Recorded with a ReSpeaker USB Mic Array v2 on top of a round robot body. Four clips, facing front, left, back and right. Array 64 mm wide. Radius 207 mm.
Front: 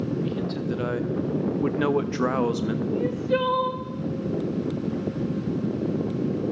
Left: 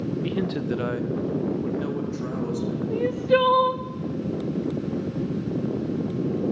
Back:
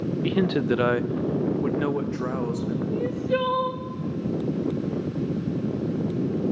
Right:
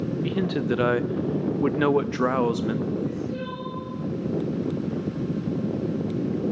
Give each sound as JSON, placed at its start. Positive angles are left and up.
{"t": 0.2, "sound": "a man speaking", "azimuth_deg": 180, "distance_m": 1.1}
{"t": 2.9, "sound": "crying", "azimuth_deg": 90, "distance_m": 1.0}